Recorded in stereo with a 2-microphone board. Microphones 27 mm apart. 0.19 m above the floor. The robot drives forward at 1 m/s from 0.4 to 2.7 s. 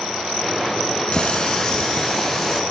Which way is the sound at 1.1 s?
35° left (ahead or behind).